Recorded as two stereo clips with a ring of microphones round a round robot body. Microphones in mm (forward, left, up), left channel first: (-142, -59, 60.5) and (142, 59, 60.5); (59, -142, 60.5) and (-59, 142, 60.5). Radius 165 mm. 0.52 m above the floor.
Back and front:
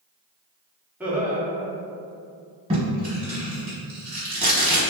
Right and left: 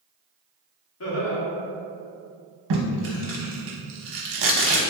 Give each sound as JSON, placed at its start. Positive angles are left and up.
{"t": 1.0, "sound": "laughter", "azimuth_deg": -60, "distance_m": 1.0}
{"t": 2.7, "sound": "tape being pulled", "azimuth_deg": 95, "distance_m": 0.8}